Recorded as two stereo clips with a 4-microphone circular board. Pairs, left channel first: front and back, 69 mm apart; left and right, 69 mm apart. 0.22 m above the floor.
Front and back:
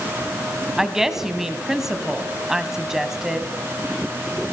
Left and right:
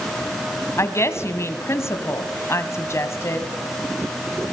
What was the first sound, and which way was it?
A woman speaking, 100° left.